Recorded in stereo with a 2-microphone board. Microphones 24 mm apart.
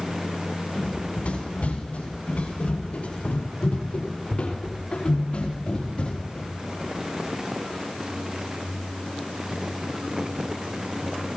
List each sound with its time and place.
0.8 s running footsteps: 75° left (ahead or behind), 6.5 m; by 6.5 s 50° left (ahead or behind), 4 m